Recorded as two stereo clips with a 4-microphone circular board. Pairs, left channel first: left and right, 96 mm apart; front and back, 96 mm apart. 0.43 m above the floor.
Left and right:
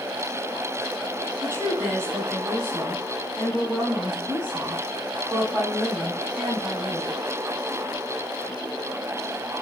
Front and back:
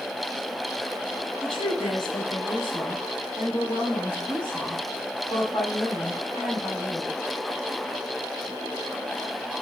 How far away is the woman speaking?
About 2 m.